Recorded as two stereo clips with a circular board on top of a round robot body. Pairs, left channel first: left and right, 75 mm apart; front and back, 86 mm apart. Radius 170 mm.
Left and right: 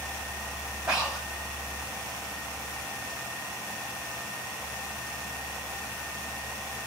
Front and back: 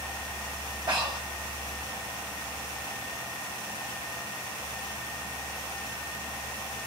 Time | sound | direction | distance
0.9 | breathing | 175° right | 1.8 m